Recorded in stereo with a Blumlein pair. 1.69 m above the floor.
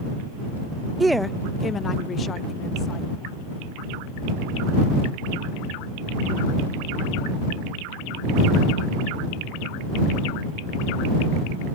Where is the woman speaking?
10° right; by 3.0 s 25° left.